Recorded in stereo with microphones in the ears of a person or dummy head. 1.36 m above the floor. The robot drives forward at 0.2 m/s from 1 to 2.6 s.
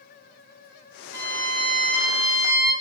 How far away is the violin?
About 1.4 m.